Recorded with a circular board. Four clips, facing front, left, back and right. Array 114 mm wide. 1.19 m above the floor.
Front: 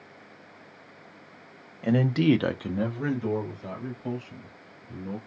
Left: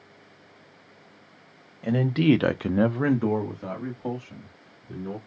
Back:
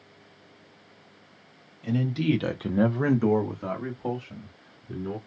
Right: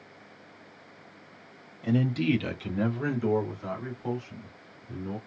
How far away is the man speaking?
About 1.1 m.